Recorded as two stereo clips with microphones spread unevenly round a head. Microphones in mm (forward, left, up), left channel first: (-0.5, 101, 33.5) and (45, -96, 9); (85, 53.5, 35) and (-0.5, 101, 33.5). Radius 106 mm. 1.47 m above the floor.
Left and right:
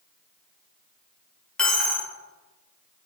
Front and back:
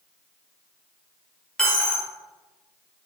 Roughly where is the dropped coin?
Ahead left.